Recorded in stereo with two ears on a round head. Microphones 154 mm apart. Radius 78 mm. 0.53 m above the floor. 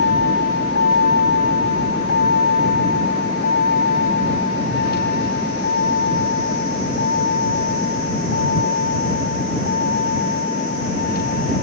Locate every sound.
0.0 s a vehicle: 80° left; by 11.6 s 55° left (ahead or behind)